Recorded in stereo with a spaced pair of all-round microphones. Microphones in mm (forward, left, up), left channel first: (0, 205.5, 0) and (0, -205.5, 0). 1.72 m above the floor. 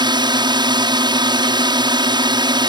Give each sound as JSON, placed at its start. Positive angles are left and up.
{"t": 0.0, "sound": "a drone", "side_deg": -10}